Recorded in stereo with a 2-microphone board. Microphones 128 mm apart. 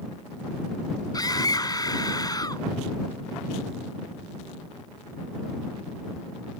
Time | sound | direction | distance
1.1 | a scream | 30° left (ahead or behind) | ?